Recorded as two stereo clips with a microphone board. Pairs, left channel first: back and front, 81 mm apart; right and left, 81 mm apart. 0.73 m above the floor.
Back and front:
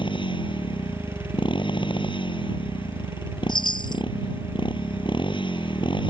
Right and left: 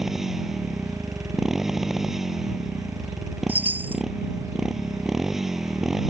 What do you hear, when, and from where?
0.0 s a motorcycle: 175° left
3.5 s a chime: 155° left